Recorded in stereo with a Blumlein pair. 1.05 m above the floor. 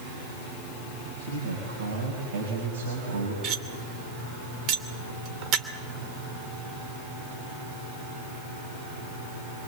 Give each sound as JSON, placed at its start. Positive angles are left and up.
{"t": 1.2, "sound": "a man speaking", "azimuth_deg": -60, "distance_m": 6.5}
{"t": 3.4, "sound": "cutlery clinking", "azimuth_deg": -35, "distance_m": 2.5}